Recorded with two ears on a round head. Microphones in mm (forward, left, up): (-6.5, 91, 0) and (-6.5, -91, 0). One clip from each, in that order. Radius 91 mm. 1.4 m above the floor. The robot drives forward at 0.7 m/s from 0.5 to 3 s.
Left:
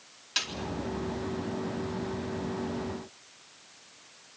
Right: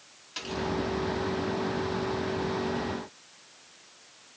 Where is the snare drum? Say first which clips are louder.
Left 6 dB; 60° left (ahead or behind), 4 m.